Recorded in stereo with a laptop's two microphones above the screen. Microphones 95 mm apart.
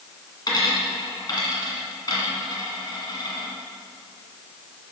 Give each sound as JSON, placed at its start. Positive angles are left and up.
{"t": 0.5, "sound": "a dropped coin", "side_deg": 45, "distance_m": 1.8}